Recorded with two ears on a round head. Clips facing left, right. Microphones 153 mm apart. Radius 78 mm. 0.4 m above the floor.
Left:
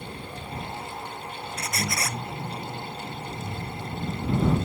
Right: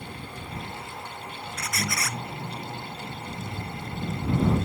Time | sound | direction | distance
1.6 | a squeak | 25° left (ahead or behind) | ?